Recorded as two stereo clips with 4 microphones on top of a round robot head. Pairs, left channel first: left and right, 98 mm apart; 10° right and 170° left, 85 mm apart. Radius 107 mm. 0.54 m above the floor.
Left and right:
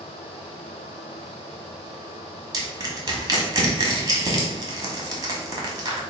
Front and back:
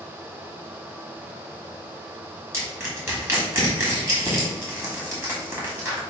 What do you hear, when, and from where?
2.5 s crushing: 135° right, 1.4 m